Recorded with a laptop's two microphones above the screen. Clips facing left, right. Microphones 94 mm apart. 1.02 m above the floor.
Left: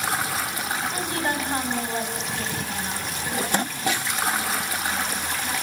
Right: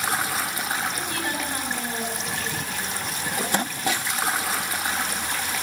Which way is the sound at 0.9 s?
30° left (ahead or behind).